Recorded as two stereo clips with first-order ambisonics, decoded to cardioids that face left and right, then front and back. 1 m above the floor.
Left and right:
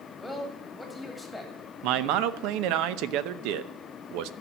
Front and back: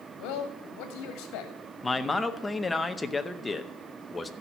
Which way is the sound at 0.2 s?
5° right.